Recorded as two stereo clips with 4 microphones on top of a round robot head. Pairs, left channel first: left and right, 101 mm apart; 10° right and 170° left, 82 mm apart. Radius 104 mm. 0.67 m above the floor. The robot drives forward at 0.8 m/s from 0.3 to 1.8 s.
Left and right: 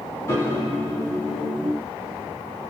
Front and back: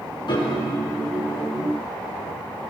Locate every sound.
0.3 s a piano: 25° left, 3 m